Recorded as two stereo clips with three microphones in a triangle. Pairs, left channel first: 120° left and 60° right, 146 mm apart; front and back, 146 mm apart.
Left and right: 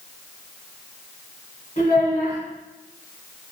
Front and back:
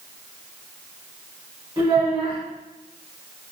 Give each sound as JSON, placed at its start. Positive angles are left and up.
{"t": 1.8, "sound": "a child speaking", "azimuth_deg": 130, "distance_m": 1.4}